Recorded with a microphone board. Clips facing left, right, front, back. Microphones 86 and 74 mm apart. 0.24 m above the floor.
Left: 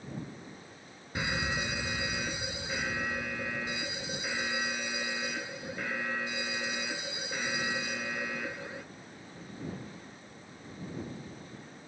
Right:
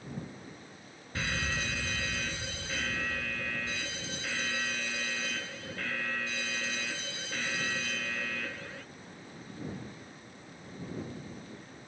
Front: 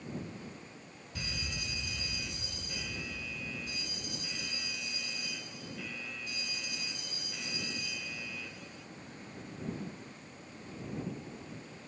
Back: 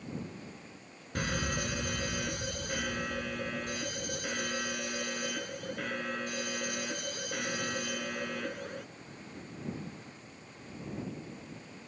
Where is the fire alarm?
160° left.